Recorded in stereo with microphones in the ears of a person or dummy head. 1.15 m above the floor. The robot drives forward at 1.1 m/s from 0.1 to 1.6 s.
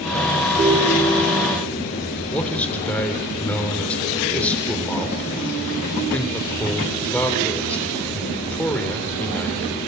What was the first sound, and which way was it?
A ringtone, 20° right (ahead or behind).